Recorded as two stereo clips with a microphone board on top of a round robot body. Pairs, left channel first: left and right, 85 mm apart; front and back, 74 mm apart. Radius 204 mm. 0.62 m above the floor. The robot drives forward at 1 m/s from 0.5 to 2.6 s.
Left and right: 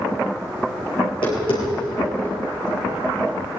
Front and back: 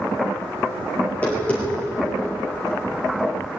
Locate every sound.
1.0 s tapping: 70° left, 9 m; by 3.4 s 80° left, 8.5 m